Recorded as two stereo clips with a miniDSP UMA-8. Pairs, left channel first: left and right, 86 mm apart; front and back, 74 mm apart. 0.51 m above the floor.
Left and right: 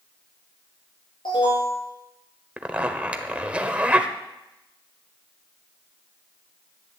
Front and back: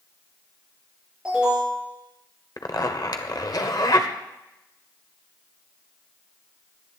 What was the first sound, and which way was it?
An alarm, 100° left.